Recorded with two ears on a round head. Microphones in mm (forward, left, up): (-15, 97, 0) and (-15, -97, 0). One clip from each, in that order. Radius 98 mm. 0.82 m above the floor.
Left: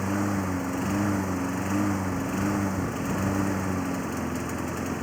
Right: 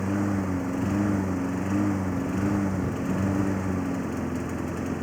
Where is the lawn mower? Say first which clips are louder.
Even; 25° left (ahead or behind).